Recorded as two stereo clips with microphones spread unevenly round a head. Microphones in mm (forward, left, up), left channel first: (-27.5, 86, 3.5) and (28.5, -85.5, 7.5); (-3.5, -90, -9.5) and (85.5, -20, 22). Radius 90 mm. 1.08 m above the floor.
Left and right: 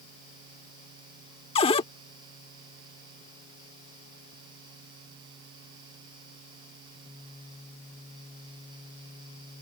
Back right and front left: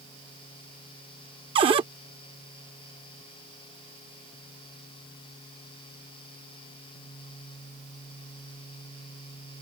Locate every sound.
1.6 s a cupboard door: 50° left